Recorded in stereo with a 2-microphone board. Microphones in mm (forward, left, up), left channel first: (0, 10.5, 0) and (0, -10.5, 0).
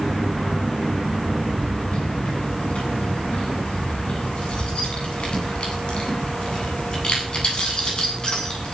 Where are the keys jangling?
80° left, 9 m; by 8.8 s 45° left (ahead or behind), 8.5 m.